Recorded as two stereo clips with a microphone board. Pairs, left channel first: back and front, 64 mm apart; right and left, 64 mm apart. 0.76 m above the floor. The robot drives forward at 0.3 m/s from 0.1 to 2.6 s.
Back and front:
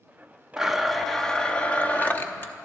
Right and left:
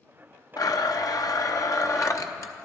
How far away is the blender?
About 0.7 m.